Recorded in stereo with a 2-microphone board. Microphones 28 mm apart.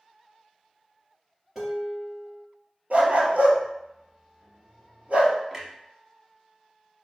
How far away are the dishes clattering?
About 2.5 m.